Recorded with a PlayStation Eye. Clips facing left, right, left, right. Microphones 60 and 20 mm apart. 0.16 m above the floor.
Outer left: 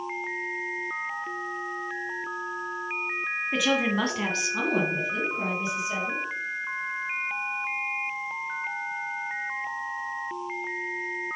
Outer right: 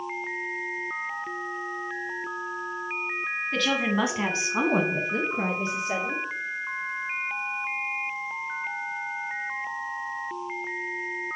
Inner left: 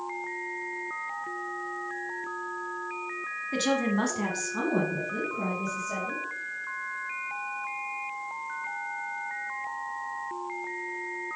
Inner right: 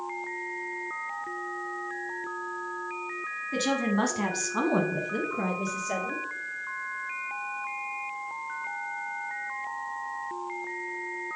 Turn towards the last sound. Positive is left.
turn(degrees=-55)  # may be behind; listen again after turning